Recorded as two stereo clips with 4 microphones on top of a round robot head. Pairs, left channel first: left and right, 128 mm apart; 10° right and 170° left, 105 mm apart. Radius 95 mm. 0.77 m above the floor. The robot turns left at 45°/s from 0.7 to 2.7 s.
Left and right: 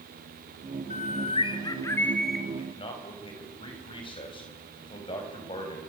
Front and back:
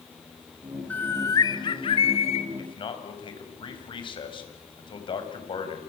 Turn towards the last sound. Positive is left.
turn(degrees=30)